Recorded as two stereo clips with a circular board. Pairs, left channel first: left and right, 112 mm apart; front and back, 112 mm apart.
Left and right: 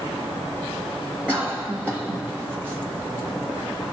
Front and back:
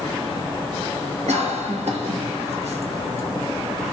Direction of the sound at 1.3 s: 165° right.